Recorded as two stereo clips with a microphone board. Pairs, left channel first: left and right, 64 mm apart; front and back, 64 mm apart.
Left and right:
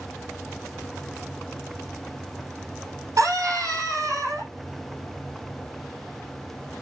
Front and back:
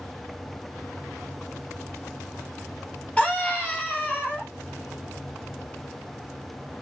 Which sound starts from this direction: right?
A scream, at 3.2 s.